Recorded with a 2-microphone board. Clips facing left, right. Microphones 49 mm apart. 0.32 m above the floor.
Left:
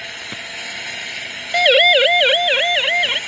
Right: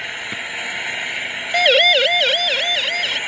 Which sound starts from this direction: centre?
A siren, at 1.5 s.